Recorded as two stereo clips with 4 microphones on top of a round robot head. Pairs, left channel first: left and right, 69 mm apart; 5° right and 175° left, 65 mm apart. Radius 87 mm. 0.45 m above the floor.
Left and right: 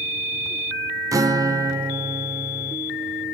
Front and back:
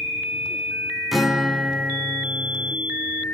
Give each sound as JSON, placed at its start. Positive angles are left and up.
{"t": 1.1, "sound": "a guitar", "azimuth_deg": -100, "distance_m": 1.8}